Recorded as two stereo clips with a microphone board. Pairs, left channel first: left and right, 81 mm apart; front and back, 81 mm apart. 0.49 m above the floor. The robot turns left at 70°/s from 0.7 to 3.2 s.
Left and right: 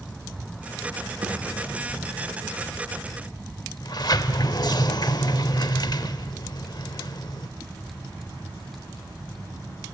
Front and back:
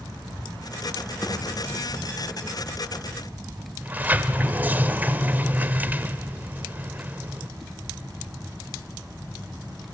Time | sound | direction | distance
1.2 | a thud | 85° right | 8 m
3.8 | a sliding door | 115° left | 1.0 m